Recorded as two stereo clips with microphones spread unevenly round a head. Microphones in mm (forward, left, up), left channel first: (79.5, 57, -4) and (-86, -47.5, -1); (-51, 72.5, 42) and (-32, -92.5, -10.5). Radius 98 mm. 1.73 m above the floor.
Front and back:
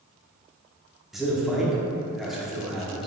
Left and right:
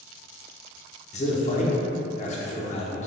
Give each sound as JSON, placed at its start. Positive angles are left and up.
{"t": 1.1, "sound": "a man speaking", "azimuth_deg": 125, "distance_m": 0.9}